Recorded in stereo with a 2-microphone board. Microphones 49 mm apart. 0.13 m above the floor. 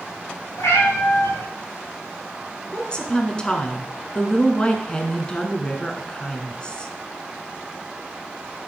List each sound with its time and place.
0.6 s a cat meowing: 75° left (ahead or behind), 5 m
2.7 s a woman speaking: 20° left (ahead or behind), 1.2 m